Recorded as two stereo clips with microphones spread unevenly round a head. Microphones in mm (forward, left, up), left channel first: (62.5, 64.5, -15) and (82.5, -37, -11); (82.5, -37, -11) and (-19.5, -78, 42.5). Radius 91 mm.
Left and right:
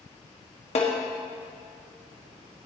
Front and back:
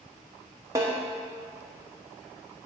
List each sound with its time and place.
0.8 s a snare drum: 140° left, 1.2 m